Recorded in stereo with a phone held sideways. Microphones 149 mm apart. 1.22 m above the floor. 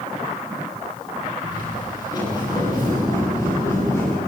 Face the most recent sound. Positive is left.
turn(degrees=20)  # may be behind; listen again after turning